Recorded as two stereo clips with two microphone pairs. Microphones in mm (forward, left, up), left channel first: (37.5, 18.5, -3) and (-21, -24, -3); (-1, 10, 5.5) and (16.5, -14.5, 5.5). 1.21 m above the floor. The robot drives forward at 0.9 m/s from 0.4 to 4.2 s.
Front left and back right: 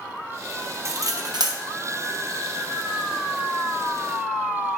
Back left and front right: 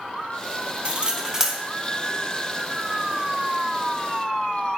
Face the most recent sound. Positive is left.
turn(degrees=-165)